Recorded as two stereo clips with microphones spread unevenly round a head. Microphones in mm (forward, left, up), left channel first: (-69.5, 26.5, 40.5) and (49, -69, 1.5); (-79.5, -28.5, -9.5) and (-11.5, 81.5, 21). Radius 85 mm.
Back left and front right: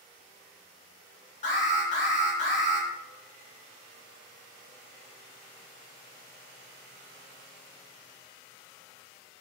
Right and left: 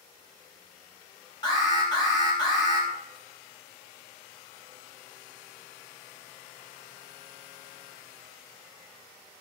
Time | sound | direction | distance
1.4 | an alarm | straight behind | 3.5 m